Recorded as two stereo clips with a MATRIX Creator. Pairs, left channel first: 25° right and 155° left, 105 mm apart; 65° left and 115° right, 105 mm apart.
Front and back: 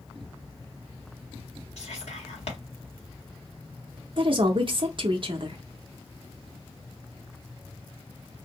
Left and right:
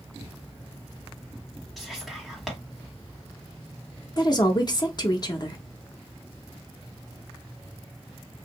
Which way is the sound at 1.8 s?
25° right.